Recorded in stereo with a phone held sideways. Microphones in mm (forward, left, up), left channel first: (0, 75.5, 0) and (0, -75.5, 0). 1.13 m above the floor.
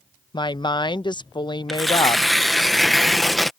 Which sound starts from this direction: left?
A woman speaking, at 0.3 s.